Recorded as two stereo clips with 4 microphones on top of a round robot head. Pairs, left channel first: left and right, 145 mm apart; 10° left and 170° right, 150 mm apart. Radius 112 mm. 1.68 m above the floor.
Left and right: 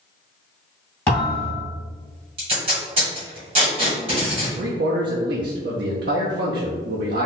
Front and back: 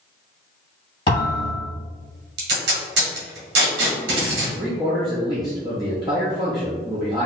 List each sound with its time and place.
1.1 s a thud: 35° left, 1.8 m
2.4 s tape being pulled: 155° right, 1.3 m
4.6 s a man speaking: 100° right, 0.5 m